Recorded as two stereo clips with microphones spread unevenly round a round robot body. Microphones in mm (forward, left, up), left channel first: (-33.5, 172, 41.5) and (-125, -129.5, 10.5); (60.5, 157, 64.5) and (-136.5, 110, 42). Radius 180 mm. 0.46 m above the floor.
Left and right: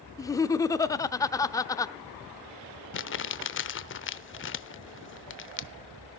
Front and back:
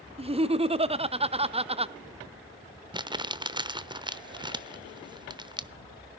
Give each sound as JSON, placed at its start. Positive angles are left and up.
{"t": 0.2, "sound": "laughter", "azimuth_deg": 155, "distance_m": 0.9}
{"t": 2.9, "sound": "crumpling", "azimuth_deg": 125, "distance_m": 0.9}